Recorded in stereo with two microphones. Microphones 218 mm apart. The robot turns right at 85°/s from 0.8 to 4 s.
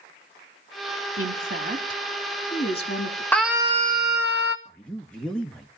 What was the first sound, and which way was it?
A woman speaking, 75° right (ahead or behind).